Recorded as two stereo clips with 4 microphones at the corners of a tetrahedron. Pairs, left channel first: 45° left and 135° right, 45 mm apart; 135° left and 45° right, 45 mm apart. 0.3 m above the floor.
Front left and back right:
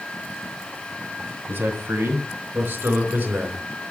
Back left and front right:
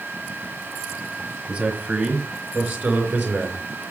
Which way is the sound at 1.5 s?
100° right.